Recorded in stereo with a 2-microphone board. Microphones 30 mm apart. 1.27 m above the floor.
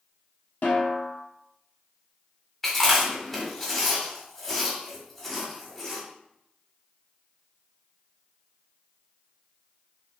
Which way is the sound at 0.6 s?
60° left (ahead or behind).